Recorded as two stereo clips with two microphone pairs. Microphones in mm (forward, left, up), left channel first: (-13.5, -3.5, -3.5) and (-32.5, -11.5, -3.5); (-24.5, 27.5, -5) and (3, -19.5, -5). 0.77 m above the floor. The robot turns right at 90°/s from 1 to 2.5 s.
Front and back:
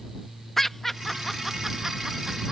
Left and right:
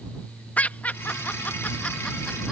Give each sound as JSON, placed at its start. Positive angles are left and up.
{"t": 0.6, "sound": "laughter", "azimuth_deg": 90}